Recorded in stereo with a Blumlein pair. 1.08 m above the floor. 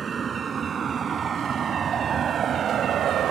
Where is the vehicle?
20° right; by 3.3 s 30° right.